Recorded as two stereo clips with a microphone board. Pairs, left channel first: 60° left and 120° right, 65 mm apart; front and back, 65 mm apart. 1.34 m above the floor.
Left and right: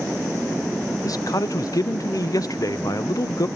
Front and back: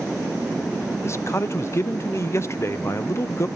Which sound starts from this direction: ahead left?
A man speaking, at 1.0 s.